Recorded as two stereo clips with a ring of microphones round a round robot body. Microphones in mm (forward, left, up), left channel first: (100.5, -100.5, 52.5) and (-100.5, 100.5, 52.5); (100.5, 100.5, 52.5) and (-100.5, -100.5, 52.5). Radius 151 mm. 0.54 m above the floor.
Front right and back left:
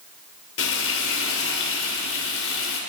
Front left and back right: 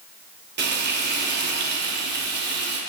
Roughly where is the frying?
Right.